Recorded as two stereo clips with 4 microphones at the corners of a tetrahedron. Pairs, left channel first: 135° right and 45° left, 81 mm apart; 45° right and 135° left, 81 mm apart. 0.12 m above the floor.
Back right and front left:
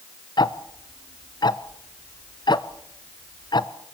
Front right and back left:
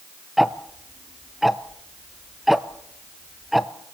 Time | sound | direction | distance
0.4 | ticking | 135° right | 0.6 m